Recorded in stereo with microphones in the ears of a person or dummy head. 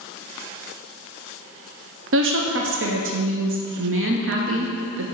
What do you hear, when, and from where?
2.1 s a woman speaking: 60° right (ahead or behind), 0.6 m